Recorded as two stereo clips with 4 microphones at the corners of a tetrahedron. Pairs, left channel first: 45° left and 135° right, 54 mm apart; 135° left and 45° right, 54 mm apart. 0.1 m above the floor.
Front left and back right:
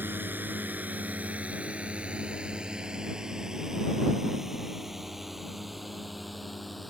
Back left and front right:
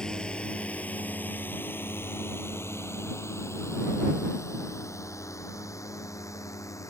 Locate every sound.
0.0 s a drone: 155° right; by 6.9 s 135° left